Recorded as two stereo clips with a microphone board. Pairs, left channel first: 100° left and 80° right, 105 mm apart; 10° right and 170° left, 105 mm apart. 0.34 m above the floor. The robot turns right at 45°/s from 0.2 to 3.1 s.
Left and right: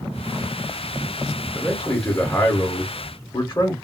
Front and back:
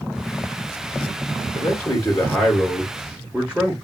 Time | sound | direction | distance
1.6 | a man speaking | 25° left | 0.9 m